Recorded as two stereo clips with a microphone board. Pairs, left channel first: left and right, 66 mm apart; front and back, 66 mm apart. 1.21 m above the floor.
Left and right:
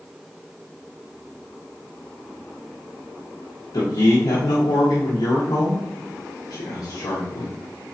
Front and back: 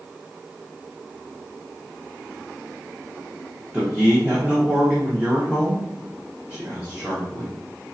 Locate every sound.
3.7 s a man speaking: 105° left, 0.7 m